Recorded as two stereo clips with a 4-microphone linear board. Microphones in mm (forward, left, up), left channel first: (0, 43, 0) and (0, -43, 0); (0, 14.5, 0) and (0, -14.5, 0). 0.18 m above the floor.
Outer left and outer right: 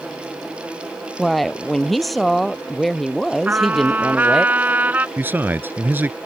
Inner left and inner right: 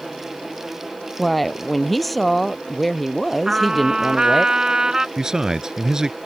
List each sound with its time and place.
1.2 s a woman speaking: centre (ahead or behind)
3.5 s a trumpet: 20° right (ahead or behind)
5.2 s a man speaking: 25° right (ahead or behind)